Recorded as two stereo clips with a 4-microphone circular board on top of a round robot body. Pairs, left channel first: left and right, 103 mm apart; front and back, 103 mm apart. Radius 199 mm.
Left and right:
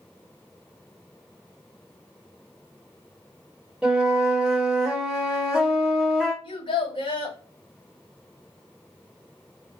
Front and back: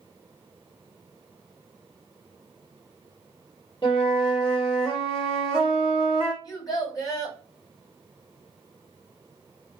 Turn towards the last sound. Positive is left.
turn(degrees=50)